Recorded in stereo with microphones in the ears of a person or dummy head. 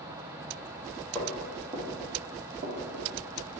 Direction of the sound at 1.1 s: Centre (ahead or behind).